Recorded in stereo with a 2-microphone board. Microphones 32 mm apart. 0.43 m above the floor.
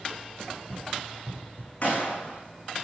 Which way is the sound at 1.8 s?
50° left (ahead or behind).